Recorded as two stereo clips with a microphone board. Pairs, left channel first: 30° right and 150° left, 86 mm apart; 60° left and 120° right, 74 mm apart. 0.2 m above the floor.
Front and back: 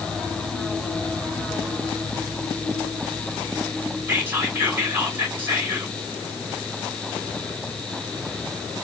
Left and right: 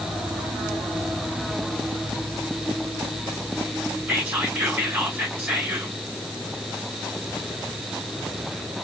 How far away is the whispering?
About 1.9 m.